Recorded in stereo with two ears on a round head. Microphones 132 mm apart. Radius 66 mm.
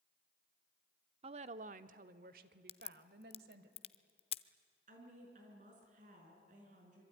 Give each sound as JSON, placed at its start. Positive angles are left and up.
{"t": 1.2, "sound": "a woman speaking", "side_deg": -40, "distance_m": 0.8}
{"t": 2.7, "sound": "a crack", "side_deg": 40, "distance_m": 0.7}
{"t": 4.9, "sound": "a woman speaking", "side_deg": -55, "distance_m": 6.5}